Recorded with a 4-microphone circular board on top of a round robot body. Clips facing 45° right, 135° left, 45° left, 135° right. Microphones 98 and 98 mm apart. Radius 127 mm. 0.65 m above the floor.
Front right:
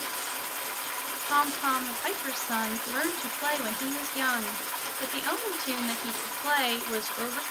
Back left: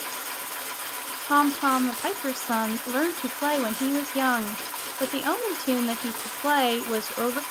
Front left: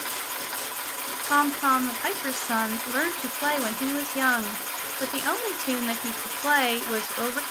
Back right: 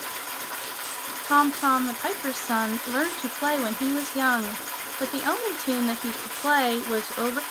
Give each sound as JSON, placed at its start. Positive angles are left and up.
{"t": 1.3, "sound": "a woman speaking", "azimuth_deg": 160, "distance_m": 0.7}